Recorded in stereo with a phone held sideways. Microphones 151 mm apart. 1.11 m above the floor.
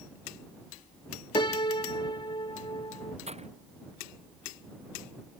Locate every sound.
1.4 s a piano: 35° left (ahead or behind)
3.3 s breaking glass: 45° right (ahead or behind)